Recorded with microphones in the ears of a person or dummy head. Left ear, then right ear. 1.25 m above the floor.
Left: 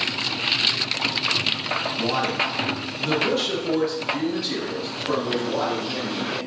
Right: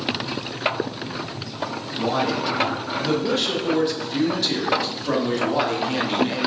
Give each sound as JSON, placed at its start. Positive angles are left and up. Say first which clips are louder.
{"t": 2.0, "sound": "a man speaking", "louder": "right 4 dB", "side_deg": 30, "distance_m": 1.3}